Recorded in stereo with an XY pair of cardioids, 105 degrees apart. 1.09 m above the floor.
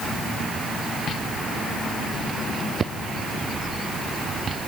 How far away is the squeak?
No squeak in this recording.